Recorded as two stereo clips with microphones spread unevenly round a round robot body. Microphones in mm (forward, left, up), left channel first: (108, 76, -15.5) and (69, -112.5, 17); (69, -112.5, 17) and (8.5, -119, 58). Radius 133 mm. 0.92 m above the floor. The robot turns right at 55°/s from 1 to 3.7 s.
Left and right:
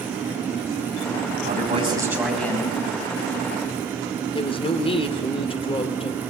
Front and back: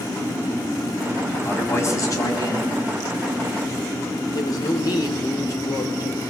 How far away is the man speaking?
About 5.5 m.